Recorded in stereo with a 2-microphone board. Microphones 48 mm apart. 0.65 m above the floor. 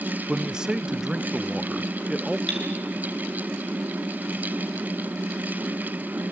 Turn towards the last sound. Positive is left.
turn(degrees=15)  # may be behind; listen again after turning